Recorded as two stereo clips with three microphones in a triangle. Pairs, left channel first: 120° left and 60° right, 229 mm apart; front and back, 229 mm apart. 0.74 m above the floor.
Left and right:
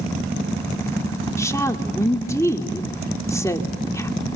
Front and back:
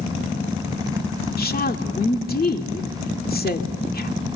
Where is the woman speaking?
45° left, 2 m.